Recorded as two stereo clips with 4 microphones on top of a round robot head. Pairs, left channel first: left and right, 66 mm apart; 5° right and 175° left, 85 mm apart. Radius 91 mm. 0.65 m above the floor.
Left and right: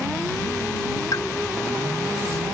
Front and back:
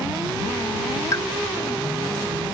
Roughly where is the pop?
Ahead left.